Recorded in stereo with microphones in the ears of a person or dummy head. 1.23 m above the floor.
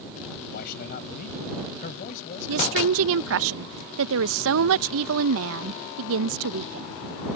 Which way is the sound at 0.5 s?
55° left (ahead or behind).